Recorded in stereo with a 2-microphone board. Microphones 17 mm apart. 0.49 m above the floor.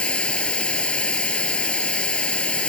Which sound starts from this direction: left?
Running water, at 0.0 s.